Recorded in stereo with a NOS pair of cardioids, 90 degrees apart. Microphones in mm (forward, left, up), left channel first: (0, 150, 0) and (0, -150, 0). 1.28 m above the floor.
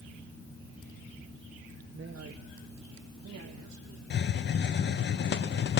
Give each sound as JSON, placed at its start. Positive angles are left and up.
{"t": 1.9, "sound": "a man speaking", "azimuth_deg": -35, "distance_m": 1.3}
{"t": 4.1, "sound": "a hiss", "azimuth_deg": 35, "distance_m": 0.9}